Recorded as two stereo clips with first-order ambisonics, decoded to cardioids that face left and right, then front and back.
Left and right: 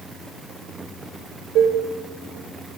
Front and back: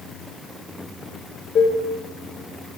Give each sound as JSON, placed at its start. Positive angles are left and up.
{"t": 1.6, "sound": "dishes clattering", "azimuth_deg": -50, "distance_m": 1.2}